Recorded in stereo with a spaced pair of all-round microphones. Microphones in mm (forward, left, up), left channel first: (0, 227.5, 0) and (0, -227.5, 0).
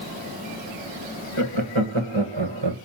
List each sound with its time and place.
1.4 s laughter: 80° right, 2 m; by 2.8 s 65° right (ahead or behind), 1.4 m